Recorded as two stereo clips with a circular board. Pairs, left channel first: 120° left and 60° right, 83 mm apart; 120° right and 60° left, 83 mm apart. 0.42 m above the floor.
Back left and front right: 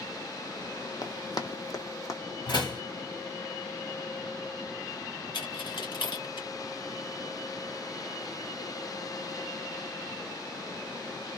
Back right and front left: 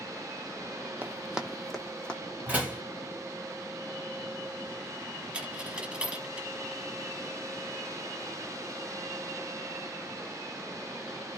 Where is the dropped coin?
135° left, 0.8 m.